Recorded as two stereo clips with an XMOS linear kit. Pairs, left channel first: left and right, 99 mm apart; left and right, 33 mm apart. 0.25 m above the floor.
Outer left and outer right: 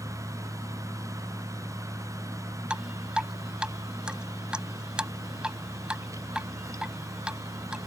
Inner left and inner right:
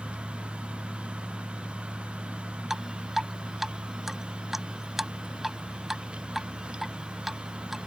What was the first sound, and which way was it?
Dripping, 10° right (ahead or behind).